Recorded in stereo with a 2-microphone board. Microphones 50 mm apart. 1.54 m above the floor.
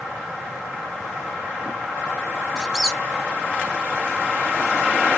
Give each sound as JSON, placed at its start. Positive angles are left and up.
{"t": 2.6, "sound": "a squeak", "side_deg": -15, "distance_m": 0.7}